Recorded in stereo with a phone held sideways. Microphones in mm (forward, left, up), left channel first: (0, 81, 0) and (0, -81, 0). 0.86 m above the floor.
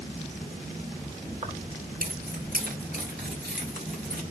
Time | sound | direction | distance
1.4 | keys jangling | 45° right (ahead or behind) | 1.8 m